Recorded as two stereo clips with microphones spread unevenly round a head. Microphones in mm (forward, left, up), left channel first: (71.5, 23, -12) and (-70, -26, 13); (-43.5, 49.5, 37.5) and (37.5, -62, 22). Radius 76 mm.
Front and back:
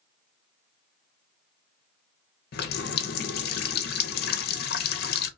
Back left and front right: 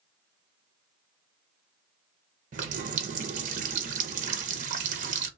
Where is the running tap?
10° right, 0.6 m.